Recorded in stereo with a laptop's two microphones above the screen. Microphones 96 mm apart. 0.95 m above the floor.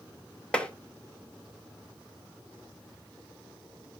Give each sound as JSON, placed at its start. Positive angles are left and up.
{"t": 0.5, "sound": "tapping", "side_deg": 10, "distance_m": 1.1}